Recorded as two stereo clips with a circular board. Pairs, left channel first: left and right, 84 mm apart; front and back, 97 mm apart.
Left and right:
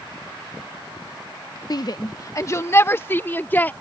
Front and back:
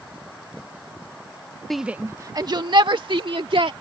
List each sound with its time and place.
1.7 s a shout: 85° left; by 3.7 s 160° left